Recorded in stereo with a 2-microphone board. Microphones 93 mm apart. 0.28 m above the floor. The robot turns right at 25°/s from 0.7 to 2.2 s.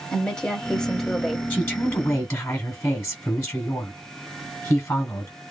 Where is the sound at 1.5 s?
5° left (ahead or behind), 1.3 m; by 5.3 s 15° left (ahead or behind), 1.3 m.